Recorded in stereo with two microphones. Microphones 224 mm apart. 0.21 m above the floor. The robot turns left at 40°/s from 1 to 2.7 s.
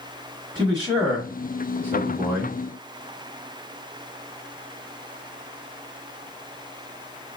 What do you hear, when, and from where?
0.6 s a man speaking: 20° right (ahead or behind), 1.2 m; by 2.6 s 5° left (ahead or behind), 1.2 m